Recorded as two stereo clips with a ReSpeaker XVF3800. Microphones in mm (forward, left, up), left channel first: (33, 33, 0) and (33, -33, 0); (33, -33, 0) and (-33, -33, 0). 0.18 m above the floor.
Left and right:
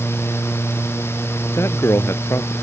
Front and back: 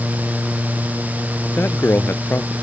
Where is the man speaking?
50° left.